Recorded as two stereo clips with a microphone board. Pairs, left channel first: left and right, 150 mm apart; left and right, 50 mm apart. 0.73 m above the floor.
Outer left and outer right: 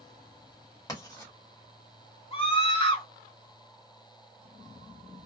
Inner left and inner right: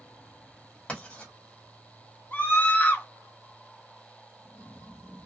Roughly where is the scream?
Left.